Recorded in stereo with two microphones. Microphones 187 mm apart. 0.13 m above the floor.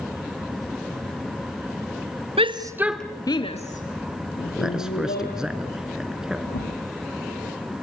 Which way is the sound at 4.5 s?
5° right (ahead or behind).